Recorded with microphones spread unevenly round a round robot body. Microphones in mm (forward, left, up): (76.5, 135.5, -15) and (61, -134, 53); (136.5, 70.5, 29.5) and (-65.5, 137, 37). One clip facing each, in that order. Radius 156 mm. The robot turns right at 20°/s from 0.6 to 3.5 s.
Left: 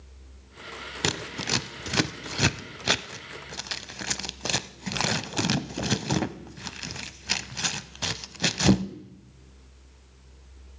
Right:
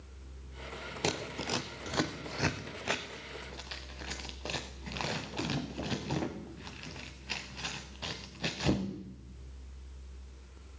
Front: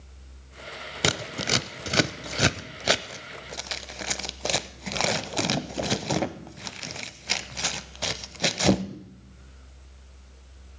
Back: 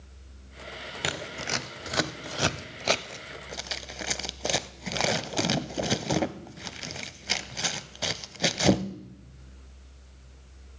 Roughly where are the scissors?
Ahead left.